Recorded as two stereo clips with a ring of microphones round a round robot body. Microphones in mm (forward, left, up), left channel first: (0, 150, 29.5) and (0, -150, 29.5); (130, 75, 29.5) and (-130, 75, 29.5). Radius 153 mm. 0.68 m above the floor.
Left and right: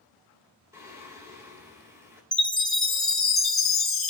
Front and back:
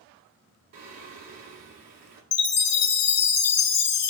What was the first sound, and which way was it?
Singing, 170° right.